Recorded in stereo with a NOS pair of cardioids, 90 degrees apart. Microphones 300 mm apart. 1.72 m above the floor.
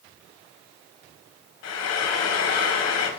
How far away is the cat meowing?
I don't hear a cat meowing.